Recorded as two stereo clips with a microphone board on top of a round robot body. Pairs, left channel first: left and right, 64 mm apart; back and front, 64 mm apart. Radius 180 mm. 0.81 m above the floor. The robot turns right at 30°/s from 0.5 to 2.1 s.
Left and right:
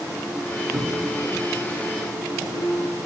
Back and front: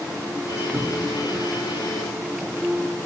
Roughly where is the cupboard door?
Ahead right.